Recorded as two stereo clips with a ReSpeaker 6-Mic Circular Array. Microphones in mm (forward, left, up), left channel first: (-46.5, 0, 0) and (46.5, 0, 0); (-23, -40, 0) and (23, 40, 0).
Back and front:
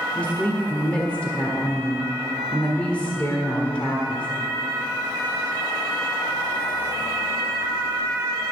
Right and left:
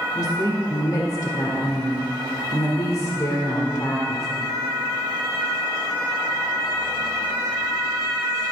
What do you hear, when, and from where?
0.1 s a woman speaking: 110° right, 1.4 m